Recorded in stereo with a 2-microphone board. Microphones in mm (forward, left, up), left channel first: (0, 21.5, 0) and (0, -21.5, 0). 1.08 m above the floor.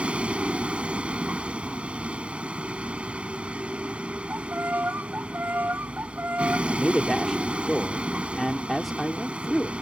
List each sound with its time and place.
0.0 s a vehicle: 30° right (ahead or behind)
4.3 s a violin: 50° right (ahead or behind)
6.7 s a man speaking: centre (ahead or behind)